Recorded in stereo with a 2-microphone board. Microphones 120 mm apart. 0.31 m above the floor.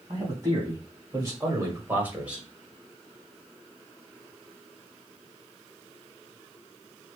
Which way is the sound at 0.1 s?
30° right (ahead or behind).